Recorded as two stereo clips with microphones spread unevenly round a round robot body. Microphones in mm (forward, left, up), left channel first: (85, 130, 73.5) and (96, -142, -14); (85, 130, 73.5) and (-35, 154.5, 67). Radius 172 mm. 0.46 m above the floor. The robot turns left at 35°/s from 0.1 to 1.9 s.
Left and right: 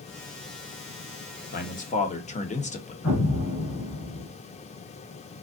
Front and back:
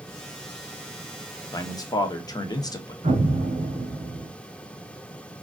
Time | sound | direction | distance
1.5 | a man speaking | 30° left | 0.9 m
3.0 | an explosion | 135° left | 2.5 m